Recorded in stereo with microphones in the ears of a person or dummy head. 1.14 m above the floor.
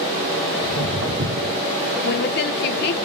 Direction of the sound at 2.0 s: 45° left (ahead or behind).